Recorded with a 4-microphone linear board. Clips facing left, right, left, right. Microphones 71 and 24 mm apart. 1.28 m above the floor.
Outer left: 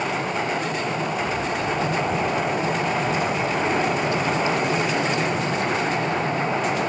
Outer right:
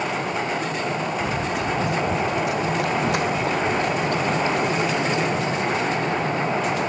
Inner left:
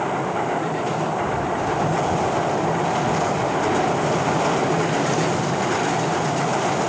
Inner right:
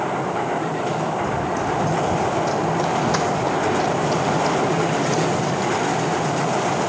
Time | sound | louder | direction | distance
1.2 | running footsteps | even, even | 75° right (ahead or behind) | 5 m